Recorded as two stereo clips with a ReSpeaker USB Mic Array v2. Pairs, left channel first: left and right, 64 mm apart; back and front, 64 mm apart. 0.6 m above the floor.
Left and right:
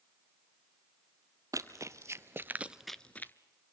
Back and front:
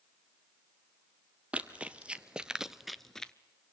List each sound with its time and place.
1.5 s running footsteps: 70° right, 1.2 m; by 3.3 s 110° left, 0.6 m